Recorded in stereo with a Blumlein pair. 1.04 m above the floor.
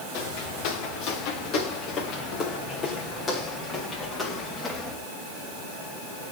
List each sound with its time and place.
0.1 s footsteps: 40° left, 7 m; by 5.0 s 5° left, 7.5 m